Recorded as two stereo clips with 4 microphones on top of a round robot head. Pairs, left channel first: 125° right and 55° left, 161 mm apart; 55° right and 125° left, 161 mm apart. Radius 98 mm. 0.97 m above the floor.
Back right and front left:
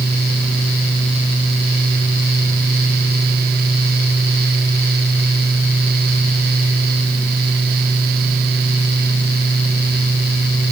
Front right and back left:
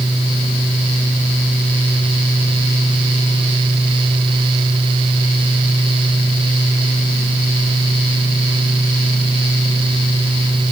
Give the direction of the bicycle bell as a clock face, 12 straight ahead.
I don't hear a bicycle bell.